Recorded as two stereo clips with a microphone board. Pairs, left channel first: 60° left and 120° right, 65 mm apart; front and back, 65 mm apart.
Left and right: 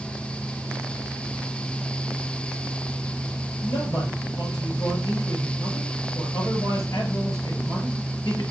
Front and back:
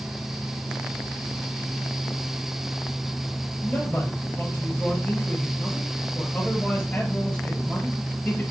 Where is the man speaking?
70° left, 4.5 m.